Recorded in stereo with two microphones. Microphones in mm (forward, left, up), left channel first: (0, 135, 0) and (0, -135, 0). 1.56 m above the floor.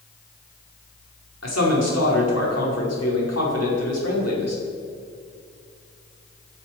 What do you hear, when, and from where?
1.4 s a man speaking: 70° left (ahead or behind), 4.5 m